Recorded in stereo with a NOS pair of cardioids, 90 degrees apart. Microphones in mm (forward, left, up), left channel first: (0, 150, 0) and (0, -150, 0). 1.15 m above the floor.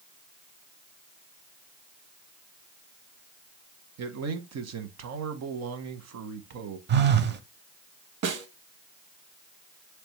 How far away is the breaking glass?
No breaking glass in this recording.